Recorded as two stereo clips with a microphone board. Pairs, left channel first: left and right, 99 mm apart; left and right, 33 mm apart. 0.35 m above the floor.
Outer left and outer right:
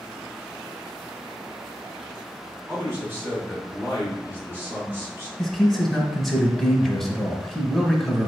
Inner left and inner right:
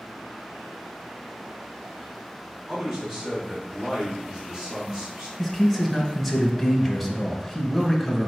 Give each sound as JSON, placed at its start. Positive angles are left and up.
{"t": 2.7, "sound": "a man speaking", "side_deg": -25, "distance_m": 2.5}
{"t": 5.4, "sound": "a man speaking", "side_deg": 0, "distance_m": 1.0}